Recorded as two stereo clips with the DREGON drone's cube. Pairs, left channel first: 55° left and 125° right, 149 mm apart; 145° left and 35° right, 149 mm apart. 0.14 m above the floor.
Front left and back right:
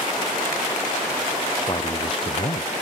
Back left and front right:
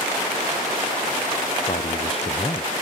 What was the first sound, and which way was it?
A man speaking, 115° left.